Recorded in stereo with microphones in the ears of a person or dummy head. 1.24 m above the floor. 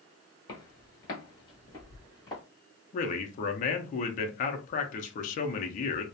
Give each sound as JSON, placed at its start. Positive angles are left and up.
{"t": 0.5, "sound": "footsteps", "side_deg": 25, "distance_m": 1.3}
{"t": 2.9, "sound": "a man speaking", "side_deg": 45, "distance_m": 0.5}